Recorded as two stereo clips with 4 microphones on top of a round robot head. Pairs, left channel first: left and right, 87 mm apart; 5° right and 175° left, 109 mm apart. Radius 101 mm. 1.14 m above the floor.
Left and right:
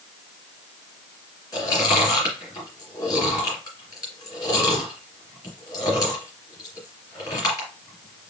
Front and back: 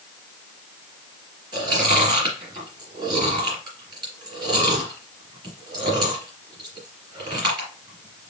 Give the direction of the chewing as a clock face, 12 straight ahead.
8 o'clock.